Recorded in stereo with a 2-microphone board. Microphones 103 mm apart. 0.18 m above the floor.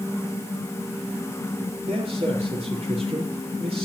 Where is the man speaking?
75° right (ahead or behind), 4.5 m.